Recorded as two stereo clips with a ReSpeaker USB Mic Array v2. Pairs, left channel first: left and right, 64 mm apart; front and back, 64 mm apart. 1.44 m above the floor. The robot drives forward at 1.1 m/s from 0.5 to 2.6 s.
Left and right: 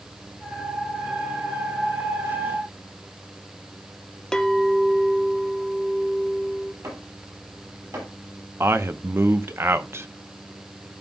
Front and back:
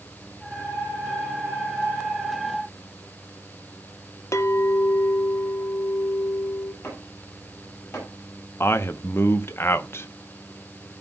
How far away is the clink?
About 0.6 m.